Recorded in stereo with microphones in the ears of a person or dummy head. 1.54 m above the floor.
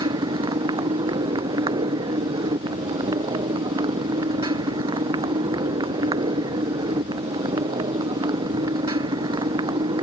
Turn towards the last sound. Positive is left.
turn(degrees=-25)  # may be behind; listen again after turning